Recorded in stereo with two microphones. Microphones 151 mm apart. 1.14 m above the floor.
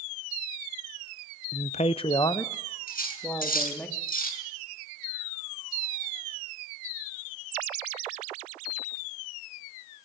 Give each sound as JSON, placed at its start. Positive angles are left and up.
{"t": 1.5, "sound": "a man speaking", "side_deg": 50, "distance_m": 0.5}
{"t": 2.9, "sound": "cutlery clinking", "side_deg": 70, "distance_m": 6.5}